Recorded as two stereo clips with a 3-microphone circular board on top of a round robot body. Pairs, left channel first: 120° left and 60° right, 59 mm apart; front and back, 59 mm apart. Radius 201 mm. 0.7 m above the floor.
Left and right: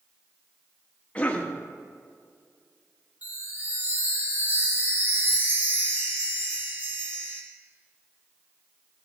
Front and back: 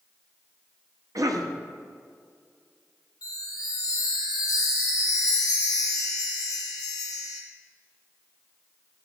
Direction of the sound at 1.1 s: 170° right.